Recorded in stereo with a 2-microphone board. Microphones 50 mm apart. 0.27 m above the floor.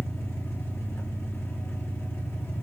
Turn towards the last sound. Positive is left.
turn(degrees=65)  # may be behind; listen again after turning